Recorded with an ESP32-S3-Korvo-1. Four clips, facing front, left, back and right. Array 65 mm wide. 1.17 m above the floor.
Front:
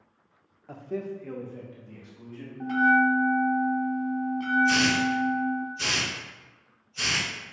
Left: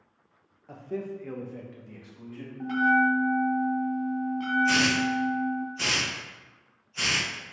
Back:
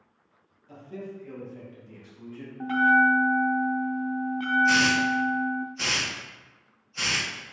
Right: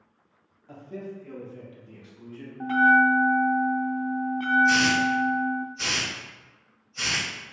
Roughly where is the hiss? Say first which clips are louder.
Right 3 dB, back 2 dB; behind left.